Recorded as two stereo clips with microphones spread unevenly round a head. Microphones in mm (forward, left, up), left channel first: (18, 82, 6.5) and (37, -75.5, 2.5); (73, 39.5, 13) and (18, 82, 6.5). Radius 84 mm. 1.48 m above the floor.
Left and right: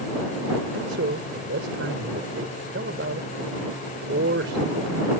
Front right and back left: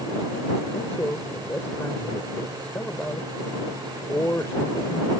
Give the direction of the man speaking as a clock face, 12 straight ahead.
4 o'clock.